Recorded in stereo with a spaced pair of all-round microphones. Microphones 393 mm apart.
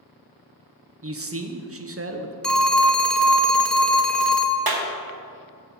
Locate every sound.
1.0 s a man speaking: 35° right (ahead or behind), 0.6 m
2.4 s a phone ringing: centre (ahead or behind), 0.5 m
4.7 s a clap: 65° right (ahead or behind), 0.9 m